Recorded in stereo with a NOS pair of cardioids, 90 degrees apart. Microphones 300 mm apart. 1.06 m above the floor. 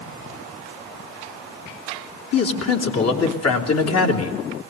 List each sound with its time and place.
2.3 s a man speaking: 55° left, 3 m